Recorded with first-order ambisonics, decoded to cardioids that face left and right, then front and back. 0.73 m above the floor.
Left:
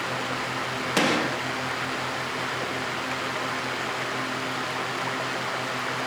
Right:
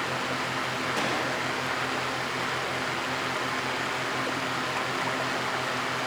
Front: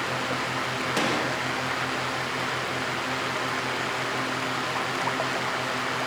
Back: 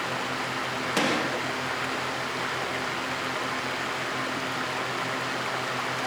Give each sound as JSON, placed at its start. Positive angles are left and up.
{"t": 1.0, "sound": "a gunshot", "azimuth_deg": 95, "distance_m": 1.2}